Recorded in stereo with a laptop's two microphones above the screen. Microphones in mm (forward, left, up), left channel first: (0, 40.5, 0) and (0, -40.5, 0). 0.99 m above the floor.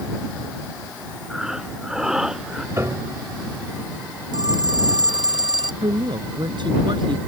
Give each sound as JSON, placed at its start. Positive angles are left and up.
{"t": 1.3, "sound": "breathing", "side_deg": -5}
{"t": 2.8, "sound": "a piano", "side_deg": -30}
{"t": 4.3, "sound": "a phone ringing", "side_deg": -60}
{"t": 5.8, "sound": "a woman speaking", "side_deg": -65}